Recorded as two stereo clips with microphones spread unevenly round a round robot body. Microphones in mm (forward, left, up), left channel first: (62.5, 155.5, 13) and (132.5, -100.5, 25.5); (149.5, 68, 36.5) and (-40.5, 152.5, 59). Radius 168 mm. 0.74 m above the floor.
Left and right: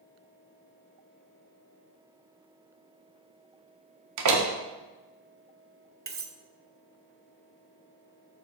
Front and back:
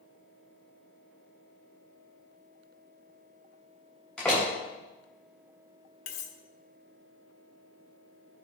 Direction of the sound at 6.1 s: 20° right.